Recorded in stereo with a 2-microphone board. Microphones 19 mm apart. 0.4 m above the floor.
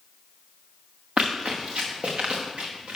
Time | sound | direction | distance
1.2 | running footsteps | 70° right (ahead or behind) | 1.7 m